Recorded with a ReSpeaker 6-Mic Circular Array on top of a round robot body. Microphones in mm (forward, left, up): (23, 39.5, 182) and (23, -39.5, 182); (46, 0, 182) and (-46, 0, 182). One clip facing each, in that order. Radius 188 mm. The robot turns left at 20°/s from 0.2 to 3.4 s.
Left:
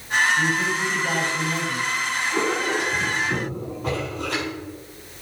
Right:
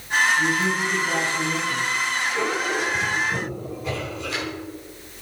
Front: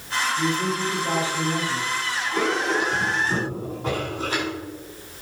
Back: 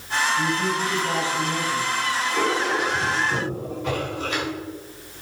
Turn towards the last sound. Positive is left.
turn(degrees=50)